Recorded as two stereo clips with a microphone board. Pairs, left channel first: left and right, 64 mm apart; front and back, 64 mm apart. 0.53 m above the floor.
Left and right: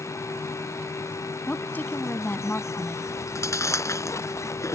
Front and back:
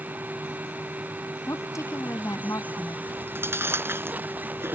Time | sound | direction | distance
1.5 | a woman speaking | 25° left | ?
3.1 | chewing | 130° left | ?